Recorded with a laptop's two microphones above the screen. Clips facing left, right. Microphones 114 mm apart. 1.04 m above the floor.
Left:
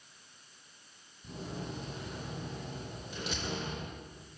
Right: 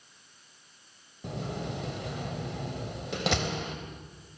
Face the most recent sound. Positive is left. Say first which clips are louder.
# right 6 dB
turn(degrees=-80)